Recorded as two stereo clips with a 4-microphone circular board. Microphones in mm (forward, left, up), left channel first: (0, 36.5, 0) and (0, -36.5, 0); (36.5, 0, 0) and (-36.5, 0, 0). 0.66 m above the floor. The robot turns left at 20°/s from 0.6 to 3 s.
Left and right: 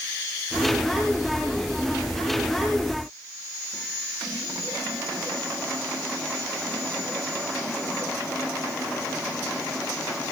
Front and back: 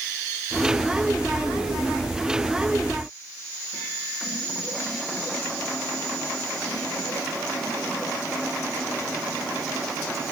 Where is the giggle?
I don't hear a giggle.